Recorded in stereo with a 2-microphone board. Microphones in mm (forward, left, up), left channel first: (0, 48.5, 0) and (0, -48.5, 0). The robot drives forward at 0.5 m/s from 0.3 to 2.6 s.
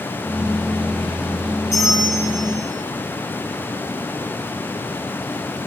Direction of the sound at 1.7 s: 5° right (ahead or behind).